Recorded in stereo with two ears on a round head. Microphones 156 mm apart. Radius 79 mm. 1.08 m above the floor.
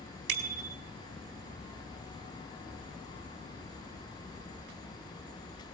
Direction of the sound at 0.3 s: 60° right (ahead or behind).